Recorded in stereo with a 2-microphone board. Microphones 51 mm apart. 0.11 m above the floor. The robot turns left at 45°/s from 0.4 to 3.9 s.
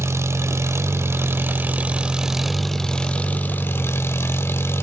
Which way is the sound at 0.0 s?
80° right.